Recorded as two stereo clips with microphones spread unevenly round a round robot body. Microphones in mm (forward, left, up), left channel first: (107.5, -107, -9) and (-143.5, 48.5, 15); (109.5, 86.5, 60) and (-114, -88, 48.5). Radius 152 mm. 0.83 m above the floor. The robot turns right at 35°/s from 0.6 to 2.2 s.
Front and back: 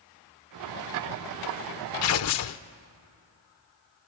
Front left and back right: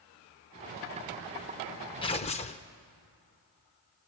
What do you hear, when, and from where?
2.0 s tearing paper: 30° right, 0.6 m; by 2.6 s 20° right, 0.6 m